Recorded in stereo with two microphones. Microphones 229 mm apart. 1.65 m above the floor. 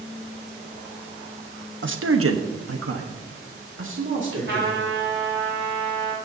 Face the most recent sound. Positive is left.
turn(degrees=-55)  # may be behind; listen again after turning